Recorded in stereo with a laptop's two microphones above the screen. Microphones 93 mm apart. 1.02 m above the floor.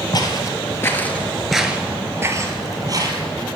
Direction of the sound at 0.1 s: 45° left (ahead or behind).